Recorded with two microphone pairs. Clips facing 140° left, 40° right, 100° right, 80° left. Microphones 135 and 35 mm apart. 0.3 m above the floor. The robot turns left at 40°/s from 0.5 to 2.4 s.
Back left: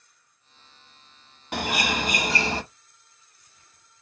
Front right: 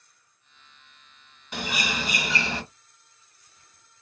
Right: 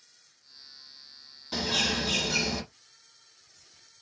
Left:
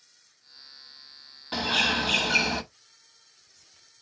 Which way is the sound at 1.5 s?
130° left.